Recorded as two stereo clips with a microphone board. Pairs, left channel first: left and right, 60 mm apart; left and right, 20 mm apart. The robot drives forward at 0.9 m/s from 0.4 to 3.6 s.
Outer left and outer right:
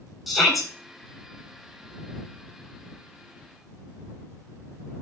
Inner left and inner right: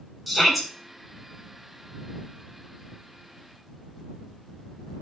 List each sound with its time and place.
0.3 s a shout: centre (ahead or behind), 4 m